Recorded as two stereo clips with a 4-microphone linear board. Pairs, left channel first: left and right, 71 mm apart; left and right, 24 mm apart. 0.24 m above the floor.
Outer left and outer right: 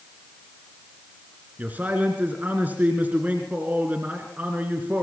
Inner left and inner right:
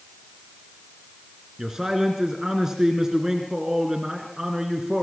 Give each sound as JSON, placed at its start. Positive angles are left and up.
{"t": 1.6, "sound": "a man speaking", "side_deg": -20, "distance_m": 3.0}